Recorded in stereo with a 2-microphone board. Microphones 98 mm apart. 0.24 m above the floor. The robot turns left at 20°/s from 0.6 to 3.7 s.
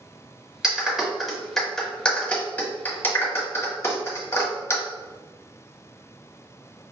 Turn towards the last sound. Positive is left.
turn(degrees=25)  # may be behind; listen again after turning